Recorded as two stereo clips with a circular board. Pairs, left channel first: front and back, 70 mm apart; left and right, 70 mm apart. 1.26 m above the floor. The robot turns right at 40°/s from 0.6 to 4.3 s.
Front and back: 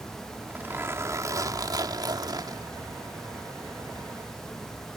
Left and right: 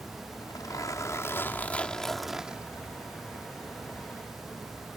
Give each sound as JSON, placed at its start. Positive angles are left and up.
{"t": 0.3, "sound": "a zipper", "azimuth_deg": 115}